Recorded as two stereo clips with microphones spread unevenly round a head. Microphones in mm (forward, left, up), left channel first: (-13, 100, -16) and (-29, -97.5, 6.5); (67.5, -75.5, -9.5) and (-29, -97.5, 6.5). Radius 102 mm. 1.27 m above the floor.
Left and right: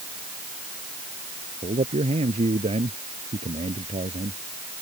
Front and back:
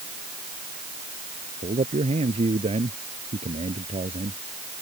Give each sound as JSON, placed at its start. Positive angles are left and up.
{"t": 1.6, "sound": "a man speaking", "azimuth_deg": -155}